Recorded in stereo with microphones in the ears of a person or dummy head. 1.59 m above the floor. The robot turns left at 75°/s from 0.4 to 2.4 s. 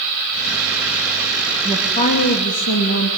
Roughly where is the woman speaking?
Behind.